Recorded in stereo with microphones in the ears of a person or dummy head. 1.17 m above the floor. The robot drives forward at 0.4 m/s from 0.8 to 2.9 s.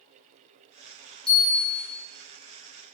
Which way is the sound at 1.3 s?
5° left (ahead or behind).